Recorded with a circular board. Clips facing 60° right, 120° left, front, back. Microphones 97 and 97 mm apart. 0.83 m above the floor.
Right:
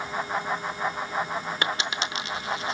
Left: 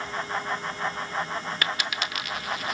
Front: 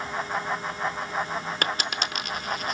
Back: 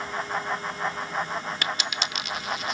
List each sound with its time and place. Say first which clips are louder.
1.6 s a dropped coin: right 1 dB, front 2 dB; 5° right, 0.5 m